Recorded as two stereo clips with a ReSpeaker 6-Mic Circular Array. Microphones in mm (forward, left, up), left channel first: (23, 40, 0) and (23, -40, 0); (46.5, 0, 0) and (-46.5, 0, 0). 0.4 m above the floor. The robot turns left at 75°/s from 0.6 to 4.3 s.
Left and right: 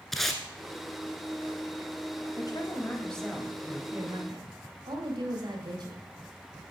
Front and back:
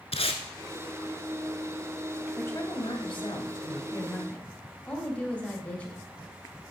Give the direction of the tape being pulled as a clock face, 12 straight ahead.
12 o'clock.